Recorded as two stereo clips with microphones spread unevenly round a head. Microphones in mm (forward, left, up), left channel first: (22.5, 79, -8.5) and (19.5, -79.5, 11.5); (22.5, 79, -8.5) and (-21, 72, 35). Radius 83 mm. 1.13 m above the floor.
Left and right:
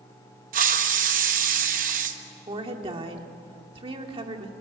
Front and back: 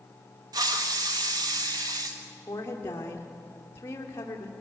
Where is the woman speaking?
35° right, 2.5 m.